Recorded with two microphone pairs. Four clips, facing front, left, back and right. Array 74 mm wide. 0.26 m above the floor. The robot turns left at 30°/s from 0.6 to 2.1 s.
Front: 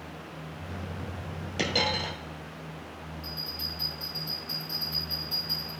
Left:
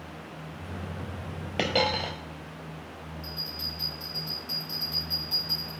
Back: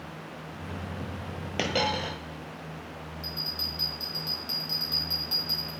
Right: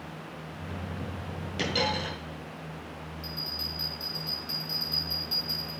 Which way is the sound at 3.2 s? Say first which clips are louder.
Right 1 dB, back 1 dB; 165° left.